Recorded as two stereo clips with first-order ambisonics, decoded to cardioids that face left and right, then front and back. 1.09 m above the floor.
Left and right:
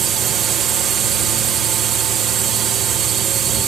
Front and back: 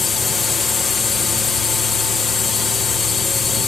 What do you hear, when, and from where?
0.0 s a drone: 60° right